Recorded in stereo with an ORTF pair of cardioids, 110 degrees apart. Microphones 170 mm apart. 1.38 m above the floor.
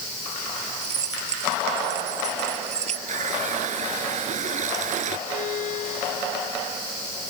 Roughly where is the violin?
Ahead left.